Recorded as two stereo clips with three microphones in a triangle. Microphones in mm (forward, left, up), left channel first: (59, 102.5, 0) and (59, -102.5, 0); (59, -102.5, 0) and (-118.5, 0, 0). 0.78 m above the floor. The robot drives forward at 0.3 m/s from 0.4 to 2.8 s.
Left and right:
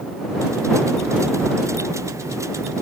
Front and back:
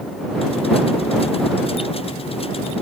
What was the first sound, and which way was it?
Only background noise.